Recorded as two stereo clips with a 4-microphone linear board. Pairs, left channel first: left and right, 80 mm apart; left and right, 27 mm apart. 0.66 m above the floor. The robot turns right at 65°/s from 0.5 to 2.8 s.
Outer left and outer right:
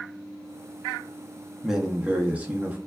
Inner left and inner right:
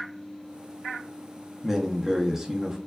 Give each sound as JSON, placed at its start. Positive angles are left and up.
{"t": 1.6, "sound": "a man speaking", "side_deg": -5, "distance_m": 0.5}